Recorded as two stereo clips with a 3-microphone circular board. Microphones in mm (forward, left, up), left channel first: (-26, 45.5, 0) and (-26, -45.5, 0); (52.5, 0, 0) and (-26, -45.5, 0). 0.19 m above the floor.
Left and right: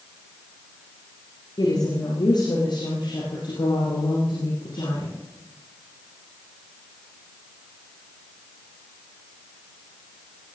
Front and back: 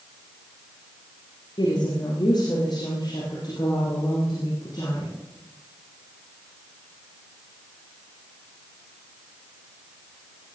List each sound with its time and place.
1.6 s a woman speaking: 60° left, 4 m; by 5.1 s 70° left, 7 m